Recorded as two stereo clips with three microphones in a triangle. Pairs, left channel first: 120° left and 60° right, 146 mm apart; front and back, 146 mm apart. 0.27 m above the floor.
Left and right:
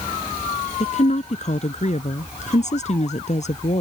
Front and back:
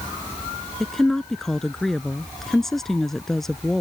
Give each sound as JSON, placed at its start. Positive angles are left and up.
{"t": 0.8, "sound": "a woman speaking", "azimuth_deg": 85}